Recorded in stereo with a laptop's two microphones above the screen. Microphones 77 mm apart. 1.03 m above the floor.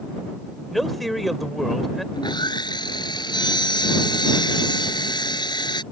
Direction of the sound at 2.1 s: 75° left (ahead or behind).